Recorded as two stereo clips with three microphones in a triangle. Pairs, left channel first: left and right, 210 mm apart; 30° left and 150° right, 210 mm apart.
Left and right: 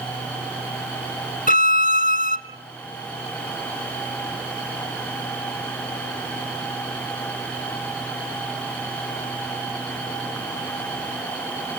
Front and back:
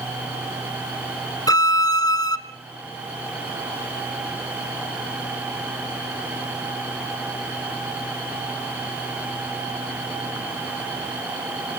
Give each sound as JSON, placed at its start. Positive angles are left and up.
{"t": 1.5, "sound": "a violin", "azimuth_deg": 95, "distance_m": 1.0}